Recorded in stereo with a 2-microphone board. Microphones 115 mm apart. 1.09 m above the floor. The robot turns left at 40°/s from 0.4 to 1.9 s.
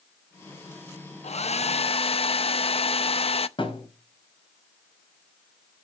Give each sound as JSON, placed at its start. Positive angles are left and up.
{"t": 1.2, "sound": "a hair dryer", "side_deg": 65, "distance_m": 0.5}
{"t": 3.6, "sound": "a thud", "side_deg": 50, "distance_m": 3.5}